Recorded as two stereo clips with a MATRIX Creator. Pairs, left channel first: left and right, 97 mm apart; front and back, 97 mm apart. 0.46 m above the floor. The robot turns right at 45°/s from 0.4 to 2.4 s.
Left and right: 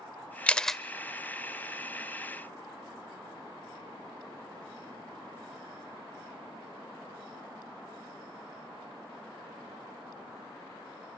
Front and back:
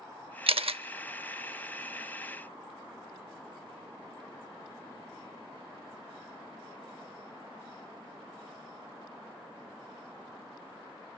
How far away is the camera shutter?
About 0.6 m.